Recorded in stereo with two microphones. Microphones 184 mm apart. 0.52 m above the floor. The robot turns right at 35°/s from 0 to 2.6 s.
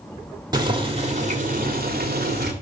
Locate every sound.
0.5 s boiling: 155° right, 1.8 m; by 2.5 s 85° right, 1.8 m